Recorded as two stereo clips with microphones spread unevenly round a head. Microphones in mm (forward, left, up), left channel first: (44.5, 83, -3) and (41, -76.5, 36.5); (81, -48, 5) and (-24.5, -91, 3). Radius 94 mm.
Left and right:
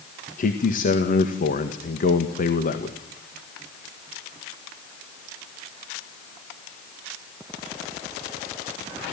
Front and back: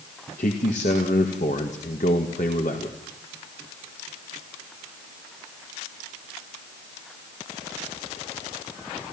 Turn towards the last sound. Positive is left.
turn(degrees=65)